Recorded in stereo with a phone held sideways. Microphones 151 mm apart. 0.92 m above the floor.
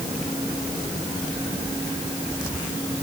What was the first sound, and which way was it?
Only background noise.